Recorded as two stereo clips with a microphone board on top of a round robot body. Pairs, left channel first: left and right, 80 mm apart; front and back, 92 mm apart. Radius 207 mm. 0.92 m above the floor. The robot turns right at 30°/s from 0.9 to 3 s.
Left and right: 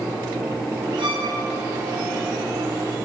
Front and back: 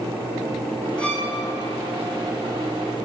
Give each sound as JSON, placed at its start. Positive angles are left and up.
{"t": 1.0, "sound": "a violin", "azimuth_deg": -80, "distance_m": 5.5}